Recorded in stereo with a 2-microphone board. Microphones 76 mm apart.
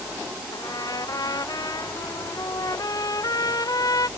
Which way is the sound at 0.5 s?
60° left (ahead or behind).